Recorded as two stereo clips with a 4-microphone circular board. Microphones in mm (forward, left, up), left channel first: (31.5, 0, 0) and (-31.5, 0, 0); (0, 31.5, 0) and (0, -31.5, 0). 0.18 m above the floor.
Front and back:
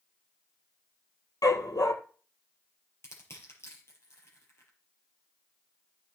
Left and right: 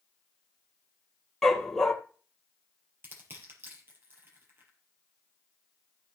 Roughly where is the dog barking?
Ahead.